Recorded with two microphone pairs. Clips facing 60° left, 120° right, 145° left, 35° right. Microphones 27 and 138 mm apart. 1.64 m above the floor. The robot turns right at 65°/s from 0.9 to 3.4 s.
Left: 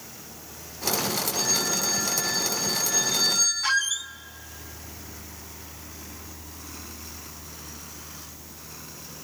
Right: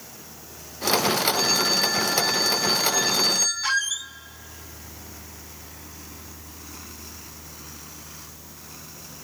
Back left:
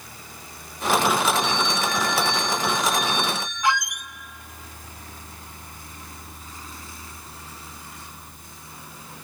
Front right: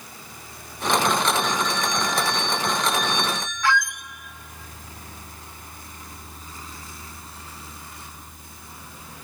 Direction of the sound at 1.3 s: 170° right.